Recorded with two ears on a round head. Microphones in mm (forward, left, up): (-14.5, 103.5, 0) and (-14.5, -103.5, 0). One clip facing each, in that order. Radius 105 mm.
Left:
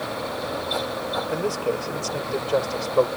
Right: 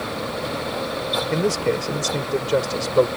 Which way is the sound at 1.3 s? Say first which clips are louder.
Right 4 dB; 30° right (ahead or behind).